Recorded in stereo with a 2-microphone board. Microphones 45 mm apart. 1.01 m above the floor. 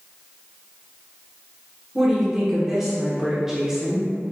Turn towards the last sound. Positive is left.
turn(degrees=-10)  # may be behind; listen again after turning